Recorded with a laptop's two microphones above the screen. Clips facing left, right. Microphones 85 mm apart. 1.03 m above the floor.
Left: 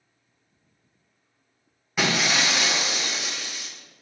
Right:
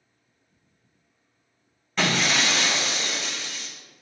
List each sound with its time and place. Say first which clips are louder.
2.0 s breaking glass: even; 10° left (ahead or behind), 2 m